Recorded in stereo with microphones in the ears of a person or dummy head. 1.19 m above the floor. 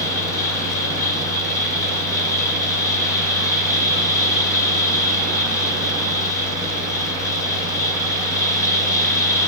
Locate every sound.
0.0 s a fan: 20° left (ahead or behind), 6.5 m